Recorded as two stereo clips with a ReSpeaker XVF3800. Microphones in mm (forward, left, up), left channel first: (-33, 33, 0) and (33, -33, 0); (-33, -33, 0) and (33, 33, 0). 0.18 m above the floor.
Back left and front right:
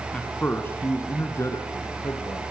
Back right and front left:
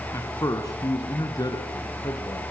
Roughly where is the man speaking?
Behind.